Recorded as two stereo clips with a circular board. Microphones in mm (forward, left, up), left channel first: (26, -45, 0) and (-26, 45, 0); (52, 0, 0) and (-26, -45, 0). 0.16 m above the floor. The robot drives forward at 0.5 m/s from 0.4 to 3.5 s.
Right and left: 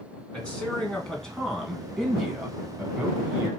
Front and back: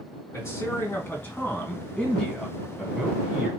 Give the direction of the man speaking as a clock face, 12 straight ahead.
12 o'clock.